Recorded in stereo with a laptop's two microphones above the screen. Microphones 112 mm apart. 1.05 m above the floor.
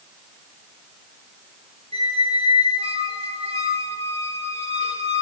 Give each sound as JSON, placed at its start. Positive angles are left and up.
{"t": 1.9, "sound": "a squeak", "side_deg": -65, "distance_m": 1.3}